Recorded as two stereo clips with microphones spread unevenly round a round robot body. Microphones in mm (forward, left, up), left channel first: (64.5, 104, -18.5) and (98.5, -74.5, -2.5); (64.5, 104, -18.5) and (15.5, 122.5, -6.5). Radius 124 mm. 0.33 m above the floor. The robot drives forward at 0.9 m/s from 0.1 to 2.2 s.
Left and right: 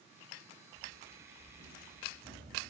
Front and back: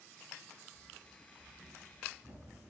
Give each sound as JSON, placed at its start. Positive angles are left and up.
{"t": 0.7, "sound": "running footsteps", "azimuth_deg": -135, "distance_m": 5.5}